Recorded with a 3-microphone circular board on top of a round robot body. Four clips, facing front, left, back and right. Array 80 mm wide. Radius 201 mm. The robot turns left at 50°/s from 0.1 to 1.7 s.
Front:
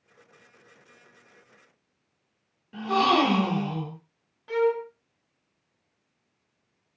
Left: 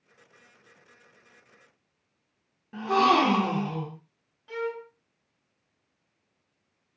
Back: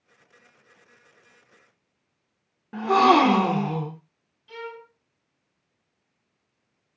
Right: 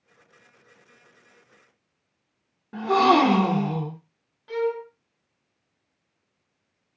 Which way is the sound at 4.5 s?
15° right.